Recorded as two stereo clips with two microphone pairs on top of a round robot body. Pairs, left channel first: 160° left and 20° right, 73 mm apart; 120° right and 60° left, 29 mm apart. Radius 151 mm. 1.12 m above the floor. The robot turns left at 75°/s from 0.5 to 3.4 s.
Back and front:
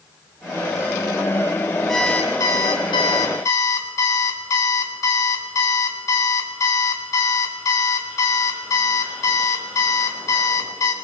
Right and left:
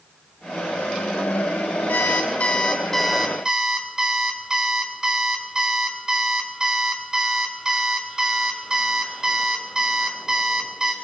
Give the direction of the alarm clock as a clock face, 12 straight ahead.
4 o'clock.